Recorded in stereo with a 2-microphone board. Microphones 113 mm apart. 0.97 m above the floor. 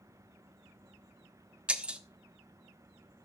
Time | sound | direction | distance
1.7 | breaking glass | 10° right (ahead or behind) | 1.1 m